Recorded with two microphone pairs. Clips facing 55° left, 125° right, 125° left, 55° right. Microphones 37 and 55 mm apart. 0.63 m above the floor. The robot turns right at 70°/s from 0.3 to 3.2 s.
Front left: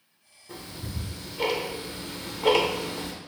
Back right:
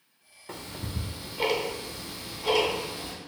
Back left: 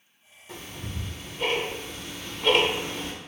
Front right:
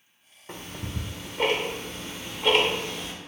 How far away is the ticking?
About 0.5 m.